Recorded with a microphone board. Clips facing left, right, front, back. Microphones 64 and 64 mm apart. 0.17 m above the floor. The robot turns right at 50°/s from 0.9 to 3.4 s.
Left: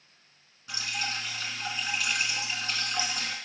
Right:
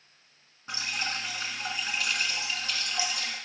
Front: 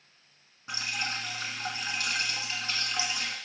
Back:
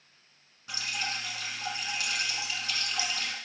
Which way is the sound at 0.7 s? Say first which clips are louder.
Right 1 dB, front 1 dB; 50° right.